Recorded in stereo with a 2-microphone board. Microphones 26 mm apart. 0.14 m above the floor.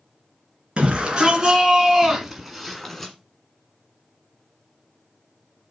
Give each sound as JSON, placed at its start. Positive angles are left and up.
{"t": 0.8, "sound": "a shout", "side_deg": -40, "distance_m": 2.0}